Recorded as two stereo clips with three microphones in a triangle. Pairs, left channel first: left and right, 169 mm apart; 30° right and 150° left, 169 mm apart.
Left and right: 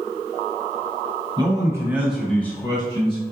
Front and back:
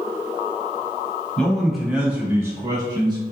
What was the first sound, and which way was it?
A man speaking, 110° right.